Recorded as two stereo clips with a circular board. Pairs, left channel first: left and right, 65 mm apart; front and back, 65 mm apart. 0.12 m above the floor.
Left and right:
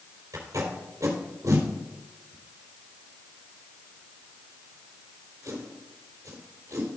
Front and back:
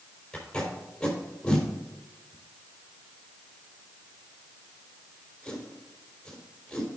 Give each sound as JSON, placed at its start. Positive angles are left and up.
{"t": 0.3, "sound": "tape being pulled", "azimuth_deg": -75, "distance_m": 4.0}